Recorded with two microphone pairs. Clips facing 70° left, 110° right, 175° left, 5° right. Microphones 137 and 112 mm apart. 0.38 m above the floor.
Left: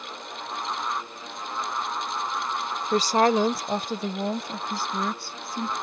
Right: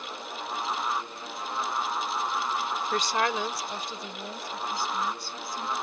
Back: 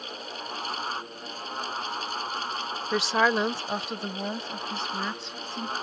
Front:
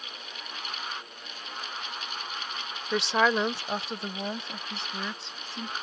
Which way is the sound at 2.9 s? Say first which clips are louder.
Left 9 dB, back 1 dB; 85° left.